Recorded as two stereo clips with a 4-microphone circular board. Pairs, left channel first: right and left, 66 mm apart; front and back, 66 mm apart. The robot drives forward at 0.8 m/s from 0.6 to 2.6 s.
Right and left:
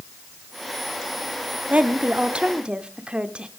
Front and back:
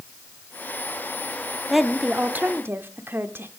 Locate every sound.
1.7 s a woman speaking: 90° left, 1.0 m; by 3.5 s 155° left, 1.2 m